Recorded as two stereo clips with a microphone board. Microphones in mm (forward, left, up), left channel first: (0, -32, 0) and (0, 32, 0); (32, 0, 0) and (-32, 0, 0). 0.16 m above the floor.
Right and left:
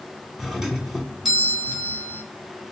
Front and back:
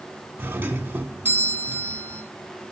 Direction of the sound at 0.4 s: 170° left.